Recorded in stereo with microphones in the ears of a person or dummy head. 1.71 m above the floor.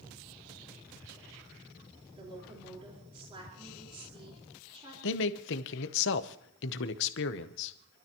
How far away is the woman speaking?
About 4.5 m.